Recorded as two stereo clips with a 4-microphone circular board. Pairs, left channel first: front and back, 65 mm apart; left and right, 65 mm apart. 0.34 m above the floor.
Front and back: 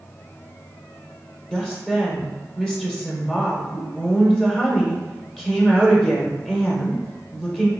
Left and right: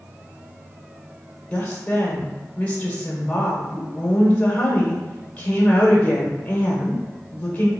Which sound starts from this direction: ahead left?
A woman speaking, at 1.5 s.